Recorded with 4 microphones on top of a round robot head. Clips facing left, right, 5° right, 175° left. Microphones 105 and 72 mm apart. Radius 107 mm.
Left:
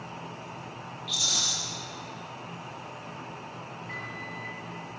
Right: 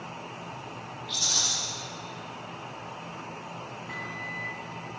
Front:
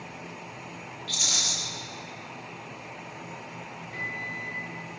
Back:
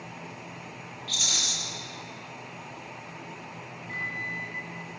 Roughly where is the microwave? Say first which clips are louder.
Right 1 dB, back 2 dB; behind.